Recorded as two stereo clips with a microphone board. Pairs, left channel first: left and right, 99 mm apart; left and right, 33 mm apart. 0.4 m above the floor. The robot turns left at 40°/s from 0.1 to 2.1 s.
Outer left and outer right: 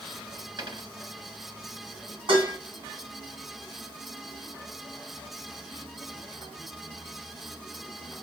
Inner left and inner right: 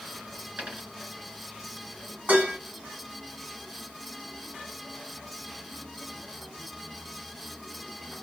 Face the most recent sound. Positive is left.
turn(degrees=-65)  # may be behind; listen again after turning